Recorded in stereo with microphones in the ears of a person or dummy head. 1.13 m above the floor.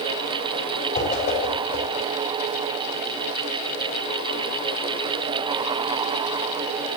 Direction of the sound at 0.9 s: 35° left (ahead or behind).